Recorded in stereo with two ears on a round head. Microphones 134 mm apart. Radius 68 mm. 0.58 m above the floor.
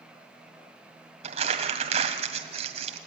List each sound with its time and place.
1.2 s crumpling: 50° right (ahead or behind), 2 m